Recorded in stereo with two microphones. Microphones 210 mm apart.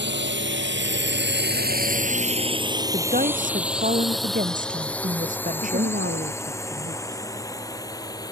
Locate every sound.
0.0 s a drone: 60° right (ahead or behind); by 8.3 s 15° left (ahead or behind)
2.9 s a woman speaking: 40° right (ahead or behind)
5.6 s a woman speaking: 60° right (ahead or behind)